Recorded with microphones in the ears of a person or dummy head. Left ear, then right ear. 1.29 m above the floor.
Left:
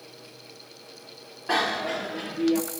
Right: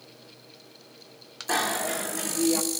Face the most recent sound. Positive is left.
turn(degrees=-20)  # may be behind; listen again after turning